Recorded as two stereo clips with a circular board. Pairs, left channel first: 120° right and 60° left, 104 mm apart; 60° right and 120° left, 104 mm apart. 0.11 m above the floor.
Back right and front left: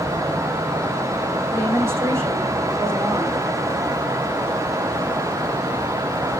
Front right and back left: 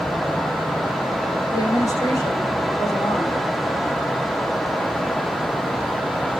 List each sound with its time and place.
1.5 s a woman speaking: 5° right, 6.5 m